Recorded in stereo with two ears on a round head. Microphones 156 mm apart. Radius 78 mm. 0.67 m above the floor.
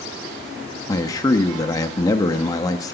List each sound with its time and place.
0.9 s a man speaking: 20° left (ahead or behind), 0.7 m